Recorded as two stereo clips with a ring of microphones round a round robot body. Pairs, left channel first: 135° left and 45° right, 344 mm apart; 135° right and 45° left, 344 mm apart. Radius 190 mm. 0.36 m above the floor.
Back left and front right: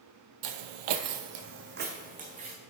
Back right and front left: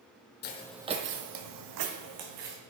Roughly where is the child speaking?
I don't hear a child speaking.